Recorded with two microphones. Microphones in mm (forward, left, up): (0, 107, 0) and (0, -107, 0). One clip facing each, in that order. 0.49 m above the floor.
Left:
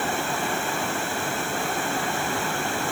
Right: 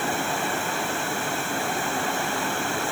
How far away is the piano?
No piano in this recording.